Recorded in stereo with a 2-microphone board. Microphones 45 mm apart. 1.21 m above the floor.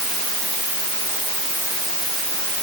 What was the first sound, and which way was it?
Only background noise.